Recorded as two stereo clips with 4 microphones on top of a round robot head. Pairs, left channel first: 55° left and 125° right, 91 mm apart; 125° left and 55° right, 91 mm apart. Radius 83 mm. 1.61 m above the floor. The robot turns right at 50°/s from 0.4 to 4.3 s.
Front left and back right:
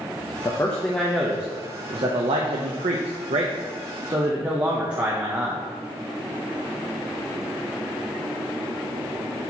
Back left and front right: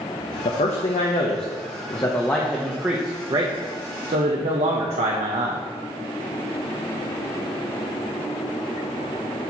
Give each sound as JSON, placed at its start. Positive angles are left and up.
{"t": 0.5, "sound": "a man speaking", "azimuth_deg": 110, "distance_m": 0.7}